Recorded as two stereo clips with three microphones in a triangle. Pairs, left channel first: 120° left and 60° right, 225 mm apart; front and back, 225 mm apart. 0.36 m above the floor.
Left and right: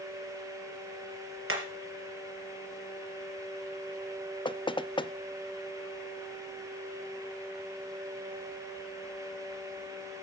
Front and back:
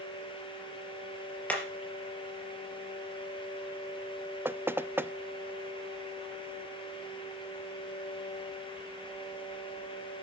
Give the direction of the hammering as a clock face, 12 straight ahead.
3 o'clock.